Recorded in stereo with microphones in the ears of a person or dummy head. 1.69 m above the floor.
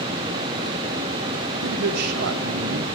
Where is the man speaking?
60° right (ahead or behind), 0.8 m.